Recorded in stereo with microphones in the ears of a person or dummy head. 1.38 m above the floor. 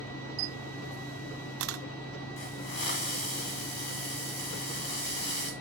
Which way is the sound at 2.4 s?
50° left (ahead or behind).